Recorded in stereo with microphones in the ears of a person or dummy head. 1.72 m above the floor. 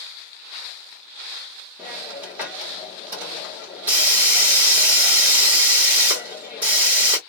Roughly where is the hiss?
Centre.